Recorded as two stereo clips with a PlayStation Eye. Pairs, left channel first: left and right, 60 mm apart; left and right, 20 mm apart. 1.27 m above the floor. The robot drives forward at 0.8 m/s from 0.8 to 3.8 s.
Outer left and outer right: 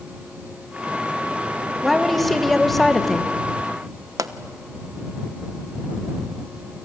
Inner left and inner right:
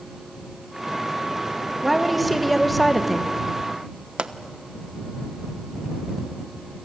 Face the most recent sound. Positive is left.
turn(degrees=-70)  # may be behind; listen again after turning